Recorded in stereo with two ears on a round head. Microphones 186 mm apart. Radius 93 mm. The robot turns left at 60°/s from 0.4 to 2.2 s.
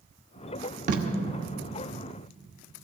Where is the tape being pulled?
35° right (ahead or behind), 1.2 m; by 1.0 s 45° right (ahead or behind), 1.2 m.